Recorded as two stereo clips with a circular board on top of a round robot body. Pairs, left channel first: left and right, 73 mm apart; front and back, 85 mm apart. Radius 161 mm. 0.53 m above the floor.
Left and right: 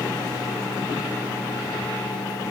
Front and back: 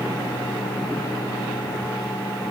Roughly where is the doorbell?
No doorbell in this recording.